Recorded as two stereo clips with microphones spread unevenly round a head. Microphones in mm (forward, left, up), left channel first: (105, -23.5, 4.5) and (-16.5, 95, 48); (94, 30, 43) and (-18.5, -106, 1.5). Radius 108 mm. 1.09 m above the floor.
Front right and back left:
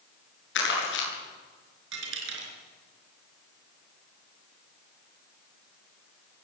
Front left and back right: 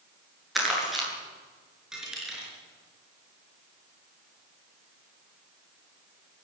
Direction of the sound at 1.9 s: 140° left.